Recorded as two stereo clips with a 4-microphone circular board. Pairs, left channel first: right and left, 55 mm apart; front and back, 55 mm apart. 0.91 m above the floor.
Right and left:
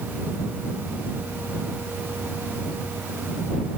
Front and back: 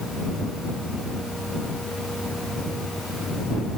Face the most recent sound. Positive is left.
No sound to turn to.